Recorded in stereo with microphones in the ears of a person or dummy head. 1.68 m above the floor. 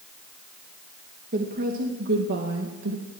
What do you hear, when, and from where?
1.3 s a woman speaking: 45° right (ahead or behind), 2.5 m; by 3.0 s 65° right (ahead or behind), 2.5 m